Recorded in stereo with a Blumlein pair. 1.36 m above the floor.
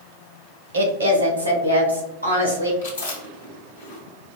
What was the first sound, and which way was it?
A woman speaking, 65° right.